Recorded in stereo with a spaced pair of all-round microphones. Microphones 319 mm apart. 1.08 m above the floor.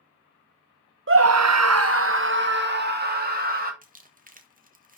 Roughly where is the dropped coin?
I don't hear a dropped coin.